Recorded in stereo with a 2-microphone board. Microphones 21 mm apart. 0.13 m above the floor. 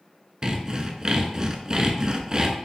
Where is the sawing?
35° right (ahead or behind), 0.6 m.